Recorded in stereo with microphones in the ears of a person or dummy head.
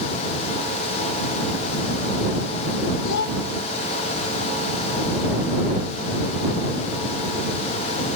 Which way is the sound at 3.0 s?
70° left (ahead or behind).